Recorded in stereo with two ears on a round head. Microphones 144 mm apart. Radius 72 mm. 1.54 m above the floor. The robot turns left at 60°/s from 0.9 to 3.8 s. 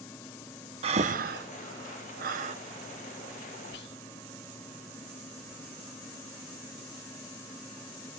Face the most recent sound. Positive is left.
turn(degrees=70)  # may be behind; listen again after turning